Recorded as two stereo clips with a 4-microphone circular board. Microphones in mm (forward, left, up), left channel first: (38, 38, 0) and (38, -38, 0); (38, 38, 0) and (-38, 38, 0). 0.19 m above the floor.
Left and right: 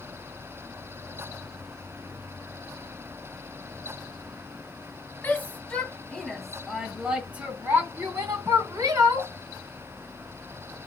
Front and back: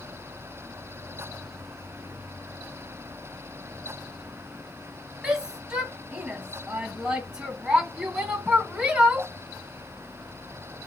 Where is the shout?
115° left, 1.5 m; by 9.3 s 100° right, 2 m.